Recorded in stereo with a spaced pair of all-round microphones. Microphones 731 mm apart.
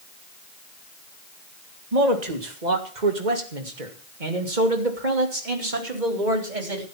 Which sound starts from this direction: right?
A man speaking, at 1.9 s.